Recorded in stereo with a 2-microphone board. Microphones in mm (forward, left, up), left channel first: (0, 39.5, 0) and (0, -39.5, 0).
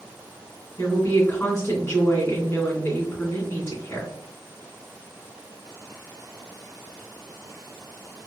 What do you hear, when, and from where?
0.8 s a woman speaking: 30° left (ahead or behind), 1.9 m